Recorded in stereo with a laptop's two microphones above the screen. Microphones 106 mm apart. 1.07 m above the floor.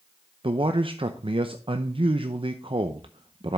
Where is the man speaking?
55° right (ahead or behind), 0.6 m.